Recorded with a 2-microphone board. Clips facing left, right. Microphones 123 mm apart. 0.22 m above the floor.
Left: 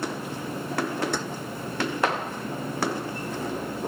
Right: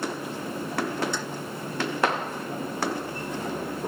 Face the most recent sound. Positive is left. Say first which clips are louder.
# left 3 dB
turn(degrees=55)  # may be behind; listen again after turning